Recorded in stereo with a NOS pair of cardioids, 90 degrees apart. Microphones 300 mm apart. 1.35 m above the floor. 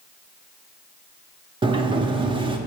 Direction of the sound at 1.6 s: 15° right.